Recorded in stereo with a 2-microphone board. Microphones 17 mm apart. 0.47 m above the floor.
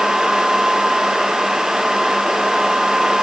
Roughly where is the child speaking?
I don't hear a child speaking.